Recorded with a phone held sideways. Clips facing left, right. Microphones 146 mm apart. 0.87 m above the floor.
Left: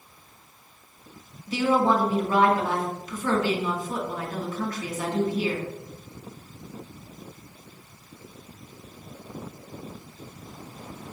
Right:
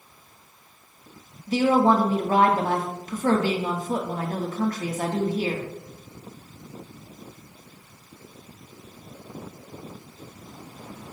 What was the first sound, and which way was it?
A woman speaking, 45° right (ahead or behind).